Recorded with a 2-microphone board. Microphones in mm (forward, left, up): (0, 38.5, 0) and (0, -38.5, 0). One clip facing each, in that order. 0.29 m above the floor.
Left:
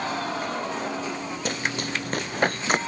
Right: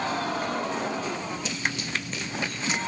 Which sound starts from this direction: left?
Running footsteps, at 1.4 s.